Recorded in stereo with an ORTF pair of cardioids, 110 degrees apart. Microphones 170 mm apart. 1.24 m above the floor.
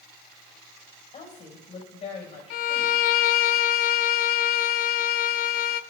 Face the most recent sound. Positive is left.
turn(degrees=65)